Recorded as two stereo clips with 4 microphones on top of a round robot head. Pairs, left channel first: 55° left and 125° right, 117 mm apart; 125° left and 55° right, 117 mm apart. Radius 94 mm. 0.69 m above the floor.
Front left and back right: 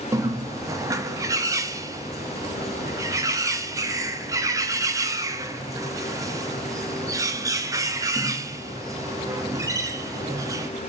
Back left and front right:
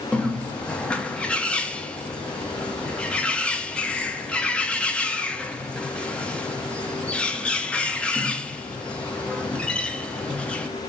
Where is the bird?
160° right, 0.6 m.